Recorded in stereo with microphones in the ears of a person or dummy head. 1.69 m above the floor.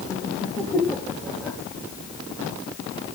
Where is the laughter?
20° left (ahead or behind), 3 m; by 1.6 s 5° left (ahead or behind), 3.5 m.